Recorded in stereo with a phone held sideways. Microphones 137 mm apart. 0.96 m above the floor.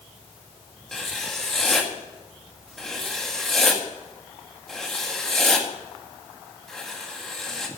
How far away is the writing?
About 1.8 m.